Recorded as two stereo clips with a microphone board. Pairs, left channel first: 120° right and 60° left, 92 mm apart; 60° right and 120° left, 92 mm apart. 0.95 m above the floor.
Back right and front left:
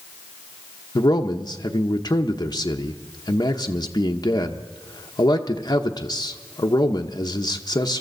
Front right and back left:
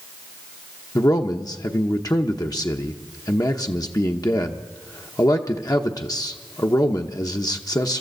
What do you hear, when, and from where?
0.9 s a man speaking: 90° right, 1.0 m